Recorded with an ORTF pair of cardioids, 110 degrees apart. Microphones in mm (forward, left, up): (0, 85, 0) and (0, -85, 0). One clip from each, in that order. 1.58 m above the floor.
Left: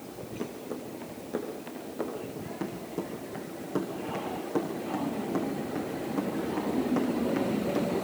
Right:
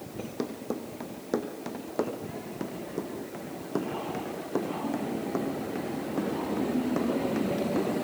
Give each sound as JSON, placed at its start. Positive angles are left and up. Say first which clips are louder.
{"t": 0.2, "sound": "running footsteps", "louder": "right 3 dB", "azimuth_deg": -65, "distance_m": 5.0}
{"t": 2.4, "sound": "running footsteps", "louder": "even", "azimuth_deg": -10, "distance_m": 6.0}